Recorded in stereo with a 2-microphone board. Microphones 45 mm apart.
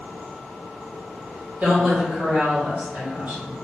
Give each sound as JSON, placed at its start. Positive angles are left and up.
{"t": 1.6, "sound": "a woman speaking", "side_deg": -40, "distance_m": 1.4}